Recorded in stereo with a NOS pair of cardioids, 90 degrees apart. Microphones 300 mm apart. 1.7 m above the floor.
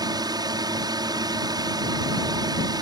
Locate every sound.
0.0 s a drone: 15° right